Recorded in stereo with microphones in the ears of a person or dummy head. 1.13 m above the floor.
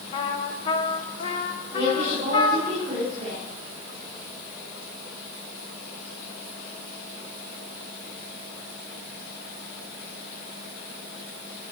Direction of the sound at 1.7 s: 35° right (ahead or behind).